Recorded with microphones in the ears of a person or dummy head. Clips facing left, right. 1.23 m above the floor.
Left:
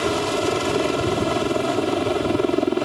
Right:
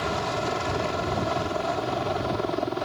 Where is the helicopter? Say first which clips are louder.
Left 7 dB; 45° left (ahead or behind); by 2.9 s 40° left (ahead or behind).